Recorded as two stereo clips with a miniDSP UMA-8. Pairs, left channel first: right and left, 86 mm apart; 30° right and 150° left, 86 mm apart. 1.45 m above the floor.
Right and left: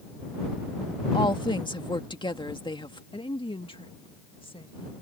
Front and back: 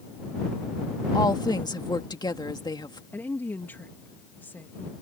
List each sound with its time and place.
1.1 s a woman speaking: 65° right
3.1 s a woman speaking: 100° right